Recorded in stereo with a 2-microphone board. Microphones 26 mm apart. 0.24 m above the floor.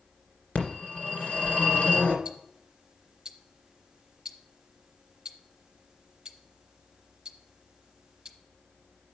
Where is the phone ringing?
70° left (ahead or behind), 2 m.